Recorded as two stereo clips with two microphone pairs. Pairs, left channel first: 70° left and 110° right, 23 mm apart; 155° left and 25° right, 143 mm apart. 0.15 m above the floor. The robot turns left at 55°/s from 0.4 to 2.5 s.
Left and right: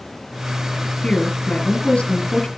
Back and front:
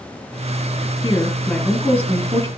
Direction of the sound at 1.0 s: 100° left.